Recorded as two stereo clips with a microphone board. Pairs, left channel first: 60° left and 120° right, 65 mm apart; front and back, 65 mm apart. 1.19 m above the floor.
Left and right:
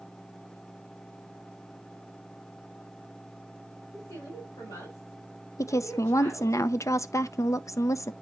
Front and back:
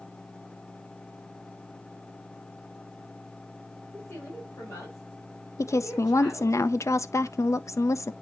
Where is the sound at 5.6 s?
30° left, 0.6 m.